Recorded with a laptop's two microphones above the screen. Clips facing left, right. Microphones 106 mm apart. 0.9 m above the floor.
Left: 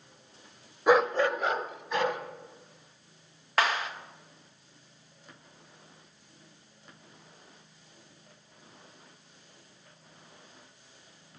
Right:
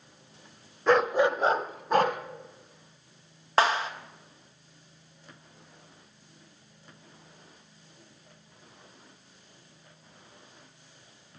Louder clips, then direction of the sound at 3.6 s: Right 4 dB; 30° right (ahead or behind).